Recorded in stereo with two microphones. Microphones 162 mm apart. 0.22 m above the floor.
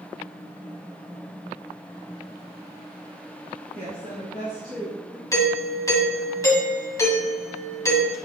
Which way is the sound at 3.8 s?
65° right (ahead or behind).